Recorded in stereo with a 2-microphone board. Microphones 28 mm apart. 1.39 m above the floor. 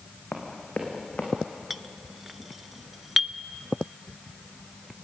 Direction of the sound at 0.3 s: 50° left (ahead or behind).